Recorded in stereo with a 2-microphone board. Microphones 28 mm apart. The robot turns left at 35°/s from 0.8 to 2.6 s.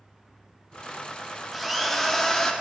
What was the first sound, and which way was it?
A drill, straight behind.